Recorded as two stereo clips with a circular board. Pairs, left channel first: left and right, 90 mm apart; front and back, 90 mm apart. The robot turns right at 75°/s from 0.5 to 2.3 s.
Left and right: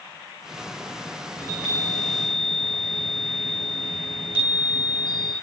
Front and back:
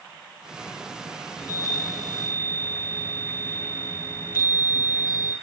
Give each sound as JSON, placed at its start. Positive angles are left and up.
{"t": 1.4, "sound": "a chime", "azimuth_deg": 40, "distance_m": 8.0}